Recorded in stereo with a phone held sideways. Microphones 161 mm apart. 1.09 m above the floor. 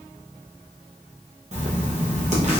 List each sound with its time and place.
1.5 s writing: 45° right (ahead or behind), 1.0 m